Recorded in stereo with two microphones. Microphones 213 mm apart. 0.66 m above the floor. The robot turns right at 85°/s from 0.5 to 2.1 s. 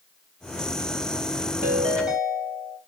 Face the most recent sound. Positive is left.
turn(degrees=-5)